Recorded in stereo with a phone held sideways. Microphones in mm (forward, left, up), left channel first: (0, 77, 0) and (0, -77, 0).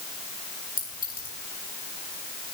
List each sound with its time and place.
0.8 s a clink: 70° left (ahead or behind), 6 m